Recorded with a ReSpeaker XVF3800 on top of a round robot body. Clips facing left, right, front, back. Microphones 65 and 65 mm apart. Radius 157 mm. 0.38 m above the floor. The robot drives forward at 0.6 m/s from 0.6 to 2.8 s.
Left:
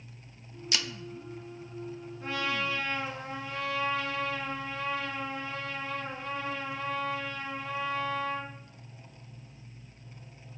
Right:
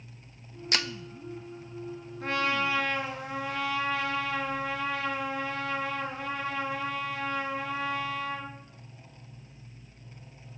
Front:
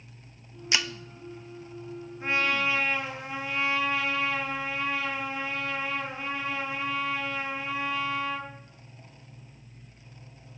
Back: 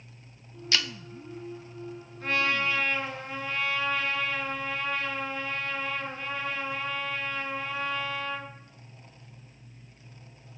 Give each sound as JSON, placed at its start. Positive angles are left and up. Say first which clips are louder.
{"t": 0.7, "sound": "breaking glass", "louder": "right 3 dB, front 1 dB", "azimuth_deg": -65, "distance_m": 0.8}
{"t": 2.2, "sound": "a trumpet", "louder": "right 4 dB, even", "azimuth_deg": -75, "distance_m": 4.5}